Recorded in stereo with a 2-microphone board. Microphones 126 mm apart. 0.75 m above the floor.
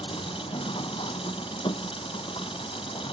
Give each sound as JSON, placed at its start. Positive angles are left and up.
{"t": 0.0, "sound": "an engine running", "side_deg": 45}